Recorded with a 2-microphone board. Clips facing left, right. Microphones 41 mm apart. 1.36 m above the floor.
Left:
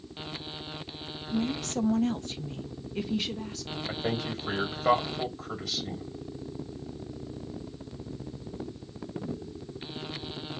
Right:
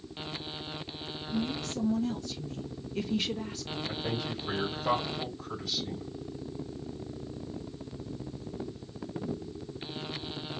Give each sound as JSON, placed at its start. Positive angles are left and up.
{"t": 1.3, "sound": "a woman speaking", "side_deg": 80, "distance_m": 0.9}
{"t": 3.9, "sound": "a man speaking", "side_deg": 75, "distance_m": 2.5}